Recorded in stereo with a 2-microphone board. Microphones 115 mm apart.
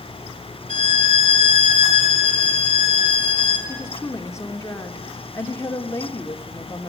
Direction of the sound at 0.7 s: 45° left (ahead or behind).